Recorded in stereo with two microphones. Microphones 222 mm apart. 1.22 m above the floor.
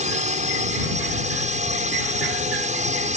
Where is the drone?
35° right (ahead or behind).